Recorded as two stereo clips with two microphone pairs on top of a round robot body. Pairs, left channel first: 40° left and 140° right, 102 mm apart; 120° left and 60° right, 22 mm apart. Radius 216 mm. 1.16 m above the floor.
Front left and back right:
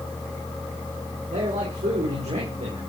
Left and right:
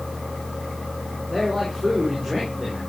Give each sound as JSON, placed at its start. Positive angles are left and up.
{"t": 1.3, "sound": "a man speaking", "azimuth_deg": -140, "distance_m": 5.5}